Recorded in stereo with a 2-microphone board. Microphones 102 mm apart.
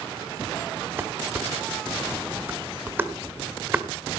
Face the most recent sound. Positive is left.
turn(degrees=-20)  # may be behind; listen again after turning